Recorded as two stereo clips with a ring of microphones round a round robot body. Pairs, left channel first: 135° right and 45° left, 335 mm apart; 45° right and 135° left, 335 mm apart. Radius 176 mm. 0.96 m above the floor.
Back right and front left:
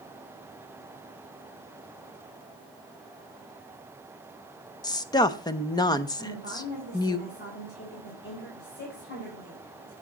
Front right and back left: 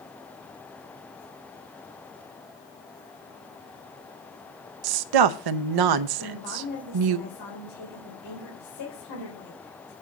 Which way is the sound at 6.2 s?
75° right.